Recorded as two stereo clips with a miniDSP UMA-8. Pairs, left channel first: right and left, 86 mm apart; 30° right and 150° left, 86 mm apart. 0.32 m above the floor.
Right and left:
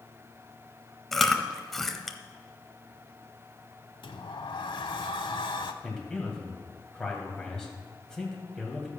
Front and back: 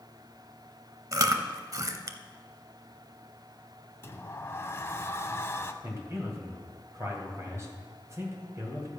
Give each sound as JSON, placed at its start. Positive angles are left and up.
{"t": 1.1, "sound": "chewing", "azimuth_deg": -175, "distance_m": 0.7}
{"t": 4.0, "sound": "a sliding door", "azimuth_deg": -85, "distance_m": 0.7}
{"t": 5.8, "sound": "a man speaking", "azimuth_deg": -170, "distance_m": 2.5}